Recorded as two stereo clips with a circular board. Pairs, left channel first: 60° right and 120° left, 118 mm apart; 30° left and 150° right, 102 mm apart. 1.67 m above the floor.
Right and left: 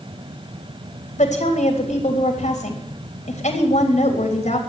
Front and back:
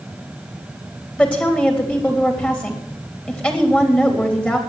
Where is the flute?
I don't hear a flute.